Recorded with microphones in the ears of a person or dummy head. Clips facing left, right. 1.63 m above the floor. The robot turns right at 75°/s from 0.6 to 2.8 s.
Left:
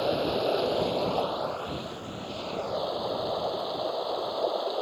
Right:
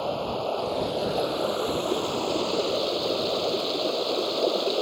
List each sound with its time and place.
0.0 s running water: 155° left; by 4.8 s 40° right